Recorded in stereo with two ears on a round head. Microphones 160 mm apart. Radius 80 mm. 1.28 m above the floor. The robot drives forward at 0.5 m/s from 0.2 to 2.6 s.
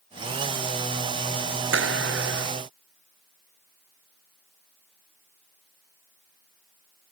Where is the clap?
80° right.